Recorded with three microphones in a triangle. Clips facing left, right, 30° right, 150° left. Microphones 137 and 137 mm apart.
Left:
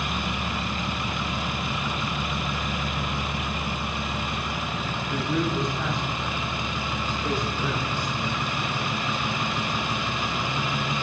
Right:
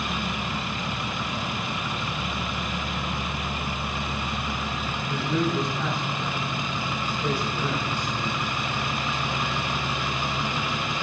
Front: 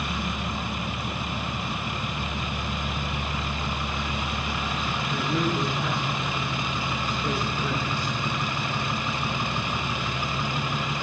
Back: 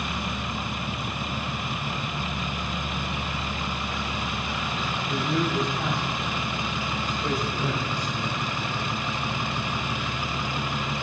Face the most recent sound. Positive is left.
turn(degrees=-155)